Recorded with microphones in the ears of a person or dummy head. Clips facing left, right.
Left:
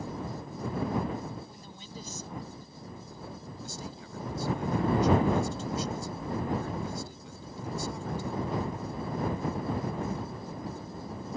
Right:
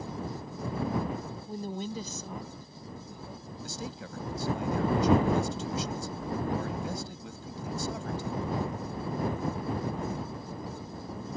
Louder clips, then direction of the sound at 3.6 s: Right 6 dB; 65° right (ahead or behind).